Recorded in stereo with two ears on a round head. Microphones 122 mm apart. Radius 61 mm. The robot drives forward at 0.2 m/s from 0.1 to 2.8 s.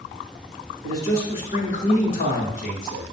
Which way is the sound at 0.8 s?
45° left (ahead or behind).